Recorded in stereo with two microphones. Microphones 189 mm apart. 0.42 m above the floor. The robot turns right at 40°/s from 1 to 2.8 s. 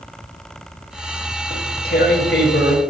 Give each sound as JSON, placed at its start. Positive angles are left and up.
{"t": 1.5, "sound": "tearing paper", "azimuth_deg": 40, "distance_m": 0.8}